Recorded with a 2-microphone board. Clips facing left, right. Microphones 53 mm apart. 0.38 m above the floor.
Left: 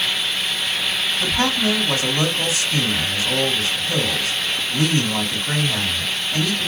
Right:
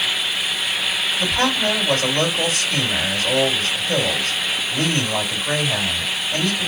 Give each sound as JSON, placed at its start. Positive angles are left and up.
{"t": 1.2, "sound": "a man speaking", "side_deg": -50, "distance_m": 3.0}